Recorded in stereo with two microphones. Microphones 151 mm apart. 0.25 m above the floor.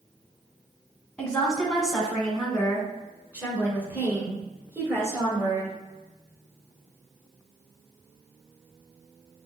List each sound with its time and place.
1.2 s a woman speaking: 5° left (ahead or behind), 2.5 m; by 5.7 s 20° right (ahead or behind), 4.5 m